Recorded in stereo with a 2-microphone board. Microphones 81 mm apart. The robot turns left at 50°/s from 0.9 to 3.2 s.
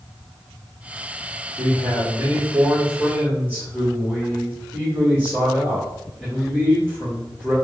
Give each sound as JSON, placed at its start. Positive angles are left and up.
{"t": 1.6, "sound": "a man speaking", "azimuth_deg": -90, "distance_m": 1.1}